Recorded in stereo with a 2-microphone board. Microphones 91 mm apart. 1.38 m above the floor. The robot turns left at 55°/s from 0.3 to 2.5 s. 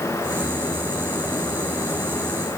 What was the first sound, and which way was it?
Only background noise.